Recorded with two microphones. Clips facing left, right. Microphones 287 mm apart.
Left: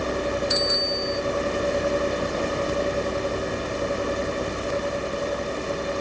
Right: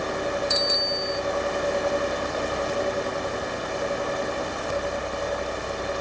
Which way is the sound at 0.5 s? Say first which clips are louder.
Left 2 dB; 45° right (ahead or behind).